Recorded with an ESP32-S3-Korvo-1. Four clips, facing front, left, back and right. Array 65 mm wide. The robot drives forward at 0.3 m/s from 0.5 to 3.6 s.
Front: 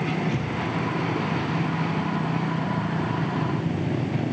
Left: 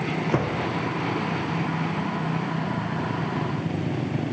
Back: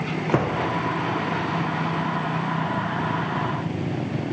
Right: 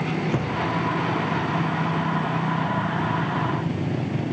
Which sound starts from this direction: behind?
A door slam, at 0.3 s.